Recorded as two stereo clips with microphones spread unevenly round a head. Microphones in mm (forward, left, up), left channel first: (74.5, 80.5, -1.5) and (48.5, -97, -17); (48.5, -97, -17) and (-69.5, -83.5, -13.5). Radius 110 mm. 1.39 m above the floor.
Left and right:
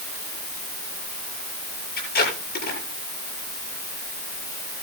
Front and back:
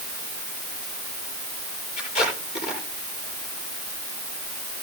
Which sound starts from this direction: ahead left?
Tape being pulled, at 2.0 s.